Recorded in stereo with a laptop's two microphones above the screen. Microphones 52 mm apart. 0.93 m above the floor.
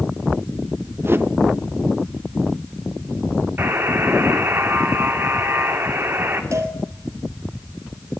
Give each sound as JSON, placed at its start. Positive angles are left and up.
{"t": 1.0, "sound": "a whoosh", "side_deg": -45, "distance_m": 1.0}
{"t": 3.6, "sound": "a buzzer", "side_deg": -40, "distance_m": 3.0}
{"t": 6.5, "sound": "a cowbell", "side_deg": -55, "distance_m": 4.0}